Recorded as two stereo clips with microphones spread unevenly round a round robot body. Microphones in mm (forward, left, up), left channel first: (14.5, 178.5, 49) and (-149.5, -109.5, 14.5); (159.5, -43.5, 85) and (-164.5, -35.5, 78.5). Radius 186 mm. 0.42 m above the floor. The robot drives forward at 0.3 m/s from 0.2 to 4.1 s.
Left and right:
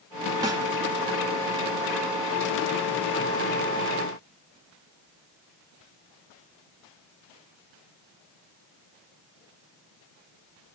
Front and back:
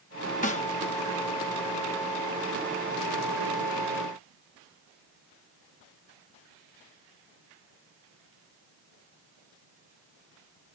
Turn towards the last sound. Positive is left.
turn(degrees=-150)